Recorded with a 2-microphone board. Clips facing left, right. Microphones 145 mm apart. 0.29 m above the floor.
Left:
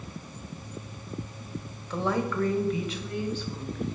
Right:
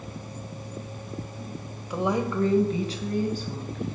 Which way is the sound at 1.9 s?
10° right (ahead or behind).